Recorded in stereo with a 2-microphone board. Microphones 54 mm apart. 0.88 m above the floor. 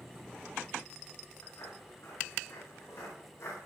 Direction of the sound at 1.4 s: 60° left (ahead or behind).